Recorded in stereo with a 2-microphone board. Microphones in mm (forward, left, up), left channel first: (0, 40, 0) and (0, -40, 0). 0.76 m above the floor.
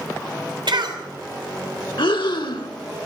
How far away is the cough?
About 3 m.